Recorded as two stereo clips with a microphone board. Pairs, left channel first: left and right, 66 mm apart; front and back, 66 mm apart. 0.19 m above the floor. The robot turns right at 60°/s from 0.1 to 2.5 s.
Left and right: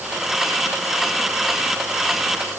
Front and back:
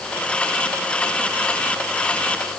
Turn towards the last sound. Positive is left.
No sound to turn to.